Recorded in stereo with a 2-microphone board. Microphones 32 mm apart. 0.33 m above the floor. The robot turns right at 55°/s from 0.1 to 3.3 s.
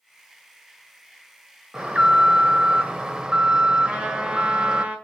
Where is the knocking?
I don't hear knocking.